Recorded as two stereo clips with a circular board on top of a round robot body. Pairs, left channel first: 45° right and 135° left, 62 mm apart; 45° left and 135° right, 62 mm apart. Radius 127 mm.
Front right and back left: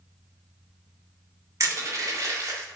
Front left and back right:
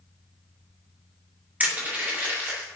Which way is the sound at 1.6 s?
165° left.